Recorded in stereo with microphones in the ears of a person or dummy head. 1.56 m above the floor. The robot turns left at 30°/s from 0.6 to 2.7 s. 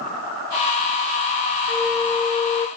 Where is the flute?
10° left (ahead or behind), 0.8 m; by 2.7 s 35° left (ahead or behind), 0.8 m.